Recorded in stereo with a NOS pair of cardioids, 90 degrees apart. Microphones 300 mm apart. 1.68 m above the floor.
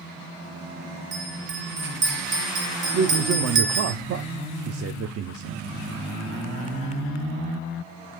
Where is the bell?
40° right, 1.7 m.